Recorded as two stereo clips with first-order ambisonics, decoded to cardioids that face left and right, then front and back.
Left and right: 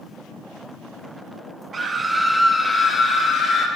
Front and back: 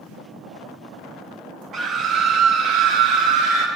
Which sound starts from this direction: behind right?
A scream, at 1.7 s.